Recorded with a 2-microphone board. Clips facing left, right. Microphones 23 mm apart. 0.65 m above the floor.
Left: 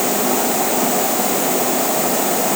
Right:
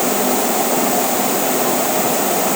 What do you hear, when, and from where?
Only background noise.